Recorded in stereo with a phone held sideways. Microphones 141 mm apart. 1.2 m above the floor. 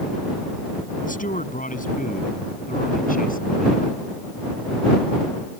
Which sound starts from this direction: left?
A man speaking, at 1.0 s.